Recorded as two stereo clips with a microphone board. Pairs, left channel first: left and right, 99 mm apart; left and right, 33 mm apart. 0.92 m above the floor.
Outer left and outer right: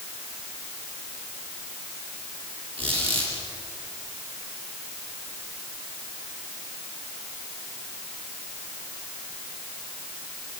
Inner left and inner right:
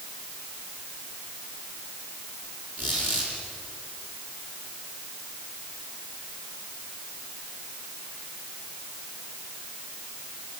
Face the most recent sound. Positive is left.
turn(degrees=-60)  # may be behind; listen again after turning